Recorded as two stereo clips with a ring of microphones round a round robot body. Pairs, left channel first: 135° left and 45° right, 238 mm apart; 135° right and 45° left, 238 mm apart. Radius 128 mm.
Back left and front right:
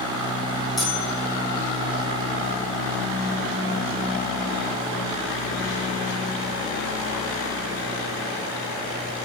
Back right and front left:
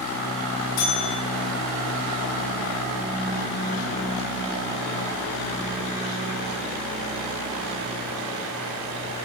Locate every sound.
0.8 s a bell: 135° right, 7.5 m